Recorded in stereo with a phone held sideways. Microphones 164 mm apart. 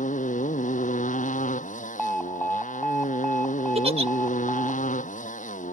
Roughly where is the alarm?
Centre.